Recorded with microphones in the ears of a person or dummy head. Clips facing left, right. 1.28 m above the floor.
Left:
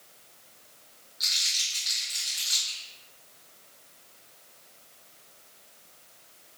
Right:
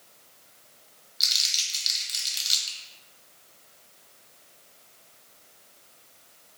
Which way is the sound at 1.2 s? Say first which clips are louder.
Right 1 dB; 40° right (ahead or behind).